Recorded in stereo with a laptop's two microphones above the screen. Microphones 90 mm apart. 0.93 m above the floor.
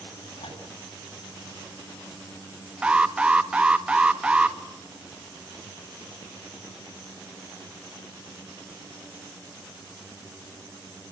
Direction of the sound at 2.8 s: 10° right (ahead or behind).